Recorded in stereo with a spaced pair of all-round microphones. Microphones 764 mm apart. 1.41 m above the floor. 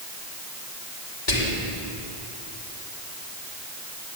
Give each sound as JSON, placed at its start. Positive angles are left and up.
{"t": 1.3, "sound": "whispering", "side_deg": 50, "distance_m": 2.0}